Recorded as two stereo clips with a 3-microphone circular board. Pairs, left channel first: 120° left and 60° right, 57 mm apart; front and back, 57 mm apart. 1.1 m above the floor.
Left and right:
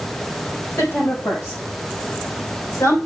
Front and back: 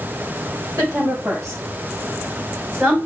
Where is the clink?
No clink in this recording.